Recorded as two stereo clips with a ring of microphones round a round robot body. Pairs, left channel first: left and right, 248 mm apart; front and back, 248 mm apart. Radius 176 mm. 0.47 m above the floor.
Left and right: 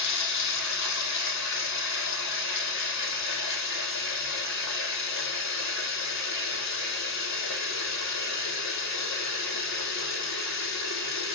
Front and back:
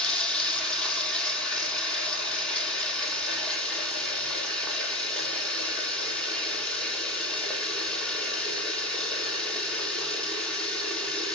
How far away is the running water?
About 2.5 m.